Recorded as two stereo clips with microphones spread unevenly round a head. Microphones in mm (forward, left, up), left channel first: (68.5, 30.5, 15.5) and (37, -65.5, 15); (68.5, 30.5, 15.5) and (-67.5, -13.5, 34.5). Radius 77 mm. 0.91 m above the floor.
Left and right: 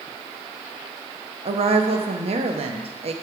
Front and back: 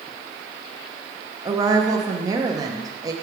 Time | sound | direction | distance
1.4 | a woman speaking | 95° right | 0.8 m